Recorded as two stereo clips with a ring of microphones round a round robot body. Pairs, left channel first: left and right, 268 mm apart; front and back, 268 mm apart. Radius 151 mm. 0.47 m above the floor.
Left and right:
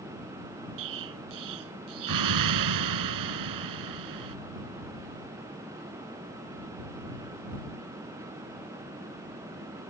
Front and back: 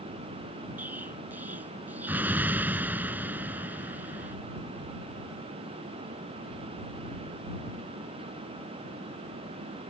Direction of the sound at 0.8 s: 95° right.